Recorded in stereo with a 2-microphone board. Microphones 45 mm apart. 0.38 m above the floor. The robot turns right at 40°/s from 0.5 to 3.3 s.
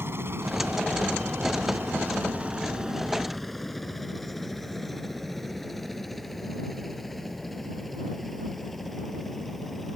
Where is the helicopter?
60° right (ahead or behind); by 10.0 s 5° left (ahead or behind).